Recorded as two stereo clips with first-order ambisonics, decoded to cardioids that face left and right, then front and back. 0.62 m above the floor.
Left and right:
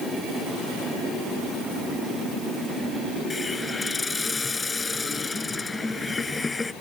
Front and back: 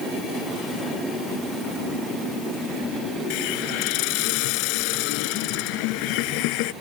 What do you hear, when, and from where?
3.3 s a hiss: 15° left